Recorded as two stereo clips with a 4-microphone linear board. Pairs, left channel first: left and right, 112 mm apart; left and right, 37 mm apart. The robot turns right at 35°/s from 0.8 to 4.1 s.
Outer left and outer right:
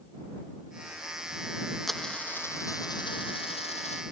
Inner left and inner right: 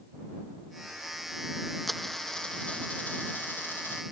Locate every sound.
1.9 s a dropped coin: straight ahead; by 4.0 s 75° left